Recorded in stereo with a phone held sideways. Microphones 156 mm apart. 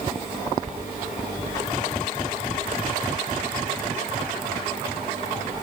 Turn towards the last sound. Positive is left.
No sound to turn to.